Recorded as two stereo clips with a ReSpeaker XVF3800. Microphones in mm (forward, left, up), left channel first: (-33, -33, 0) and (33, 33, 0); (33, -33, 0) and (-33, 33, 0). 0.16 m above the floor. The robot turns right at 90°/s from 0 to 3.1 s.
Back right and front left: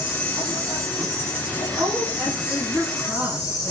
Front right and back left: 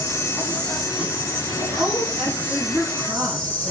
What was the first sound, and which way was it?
An insect, 25° right.